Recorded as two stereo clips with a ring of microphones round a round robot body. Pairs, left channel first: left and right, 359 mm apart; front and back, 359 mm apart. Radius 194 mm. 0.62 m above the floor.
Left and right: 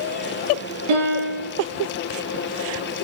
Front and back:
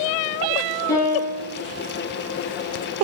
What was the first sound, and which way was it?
A piano, 85° right.